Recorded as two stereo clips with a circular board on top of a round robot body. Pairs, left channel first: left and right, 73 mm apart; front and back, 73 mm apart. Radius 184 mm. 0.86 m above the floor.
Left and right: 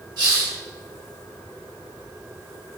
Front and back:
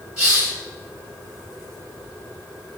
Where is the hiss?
110° right, 0.9 m.